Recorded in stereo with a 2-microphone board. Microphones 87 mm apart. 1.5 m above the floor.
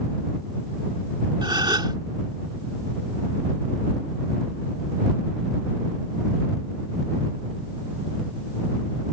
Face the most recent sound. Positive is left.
turn(degrees=-60)  # may be behind; listen again after turning